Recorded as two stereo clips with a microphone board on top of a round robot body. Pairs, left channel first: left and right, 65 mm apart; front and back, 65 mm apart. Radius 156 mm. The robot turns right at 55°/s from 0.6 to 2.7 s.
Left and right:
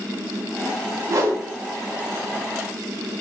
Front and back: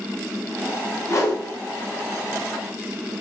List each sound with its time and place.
1.1 s a whoosh: 50° right, 1.1 m; by 1.4 s 30° right, 1.1 m